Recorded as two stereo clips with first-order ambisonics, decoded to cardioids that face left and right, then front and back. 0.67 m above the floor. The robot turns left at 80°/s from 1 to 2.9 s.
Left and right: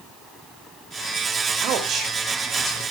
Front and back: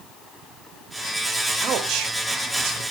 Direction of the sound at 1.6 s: 120° right.